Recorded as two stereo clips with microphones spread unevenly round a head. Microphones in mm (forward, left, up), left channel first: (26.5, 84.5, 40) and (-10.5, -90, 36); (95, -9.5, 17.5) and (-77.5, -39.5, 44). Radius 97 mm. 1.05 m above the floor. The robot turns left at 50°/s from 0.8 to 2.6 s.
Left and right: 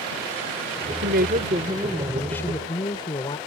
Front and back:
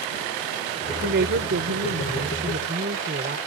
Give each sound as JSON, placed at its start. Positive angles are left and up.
{"t": 1.0, "sound": "a woman speaking", "azimuth_deg": -135}